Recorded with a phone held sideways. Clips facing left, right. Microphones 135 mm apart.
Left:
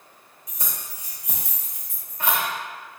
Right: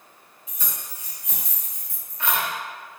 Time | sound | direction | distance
0.5 | keys jangling | 40° left (ahead or behind) | 1.1 m